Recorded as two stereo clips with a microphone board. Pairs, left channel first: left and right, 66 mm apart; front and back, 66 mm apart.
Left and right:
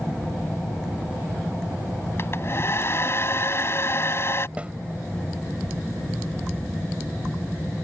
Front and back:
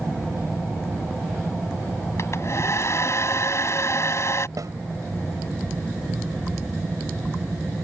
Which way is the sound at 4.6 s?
160° right.